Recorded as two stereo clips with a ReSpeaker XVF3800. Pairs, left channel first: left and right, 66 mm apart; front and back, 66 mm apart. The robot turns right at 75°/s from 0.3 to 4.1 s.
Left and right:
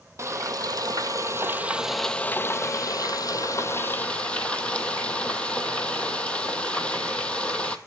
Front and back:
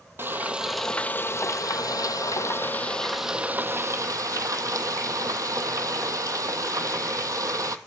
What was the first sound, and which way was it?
Frying, 125° right.